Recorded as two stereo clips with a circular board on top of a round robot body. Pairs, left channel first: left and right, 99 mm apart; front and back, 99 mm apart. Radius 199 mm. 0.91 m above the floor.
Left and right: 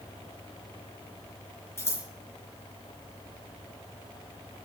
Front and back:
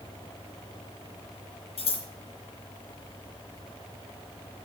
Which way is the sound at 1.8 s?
25° left.